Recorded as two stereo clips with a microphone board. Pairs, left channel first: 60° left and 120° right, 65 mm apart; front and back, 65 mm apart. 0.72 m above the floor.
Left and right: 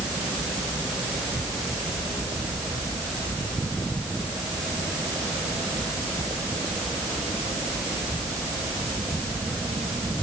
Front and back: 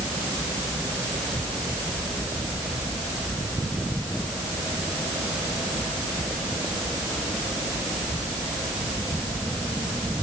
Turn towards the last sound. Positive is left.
No sound to turn to.